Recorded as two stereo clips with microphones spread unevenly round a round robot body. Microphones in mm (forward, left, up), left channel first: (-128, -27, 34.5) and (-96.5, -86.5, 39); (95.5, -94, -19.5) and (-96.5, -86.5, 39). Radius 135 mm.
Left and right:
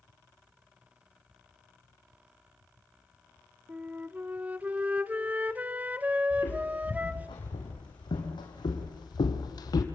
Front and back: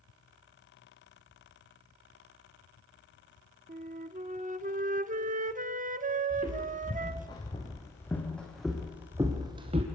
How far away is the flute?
About 1.0 m.